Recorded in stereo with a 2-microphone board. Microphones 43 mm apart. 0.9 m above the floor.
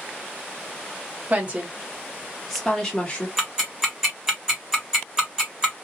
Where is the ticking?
10° right (ahead or behind), 1.6 m.